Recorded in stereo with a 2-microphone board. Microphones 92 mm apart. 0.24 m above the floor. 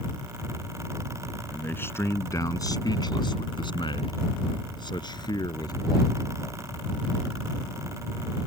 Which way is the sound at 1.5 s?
20° left (ahead or behind).